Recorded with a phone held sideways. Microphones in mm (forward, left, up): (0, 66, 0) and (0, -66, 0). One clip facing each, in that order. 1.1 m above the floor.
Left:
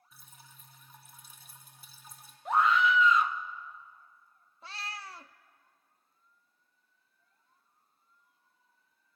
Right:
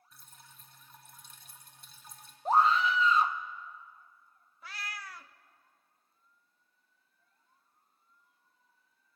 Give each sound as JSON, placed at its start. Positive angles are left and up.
{"t": 0.1, "sound": "dripping", "side_deg": 5, "distance_m": 3.0}
{"t": 2.5, "sound": "a scream", "side_deg": -30, "distance_m": 1.1}
{"t": 4.6, "sound": "a cat meowing", "side_deg": 30, "distance_m": 0.5}